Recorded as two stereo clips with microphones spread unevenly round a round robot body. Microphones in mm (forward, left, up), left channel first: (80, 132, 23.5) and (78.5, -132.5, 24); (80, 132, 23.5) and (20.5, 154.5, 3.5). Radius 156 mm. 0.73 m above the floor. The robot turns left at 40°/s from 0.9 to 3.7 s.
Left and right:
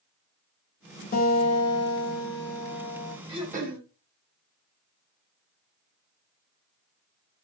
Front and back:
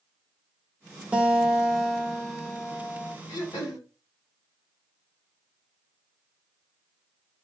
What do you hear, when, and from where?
1.1 s a guitar: 130° left, 0.9 m; by 3.2 s 45° left, 0.9 m
3.3 s throat clearing: 15° right, 1.0 m; by 3.8 s 35° right, 1.0 m